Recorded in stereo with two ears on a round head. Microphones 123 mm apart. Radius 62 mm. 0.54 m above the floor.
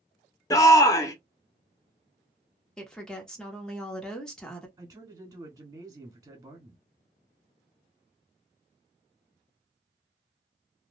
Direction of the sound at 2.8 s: 5° left (ahead or behind).